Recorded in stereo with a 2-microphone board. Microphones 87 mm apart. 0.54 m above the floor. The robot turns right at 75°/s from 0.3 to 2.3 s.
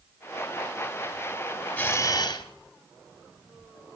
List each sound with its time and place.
1.8 s a camera shutter: 20° left, 1.8 m; by 2.4 s 60° left, 1.8 m